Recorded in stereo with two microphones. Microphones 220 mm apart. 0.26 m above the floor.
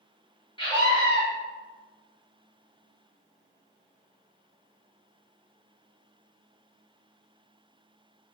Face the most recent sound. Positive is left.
turn(degrees=20)  # may be behind; listen again after turning